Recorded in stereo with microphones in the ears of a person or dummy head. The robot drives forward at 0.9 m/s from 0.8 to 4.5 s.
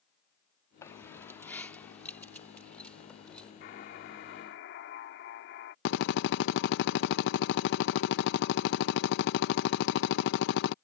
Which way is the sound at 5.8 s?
70° left (ahead or behind).